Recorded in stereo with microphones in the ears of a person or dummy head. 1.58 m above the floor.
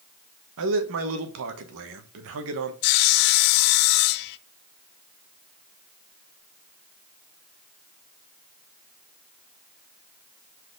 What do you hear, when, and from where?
0.6 s a man speaking: 70° right (ahead or behind), 1.3 m
2.8 s sawing: 55° left (ahead or behind), 0.5 m